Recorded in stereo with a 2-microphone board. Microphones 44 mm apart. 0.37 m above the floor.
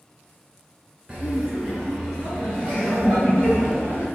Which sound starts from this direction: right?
Laughter, at 1.1 s.